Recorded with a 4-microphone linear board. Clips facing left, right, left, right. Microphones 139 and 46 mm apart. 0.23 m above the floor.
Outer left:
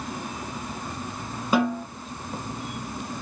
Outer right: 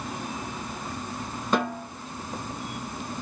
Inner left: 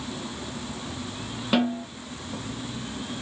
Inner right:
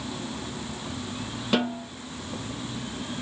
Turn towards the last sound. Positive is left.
turn(degrees=5)  # may be behind; listen again after turning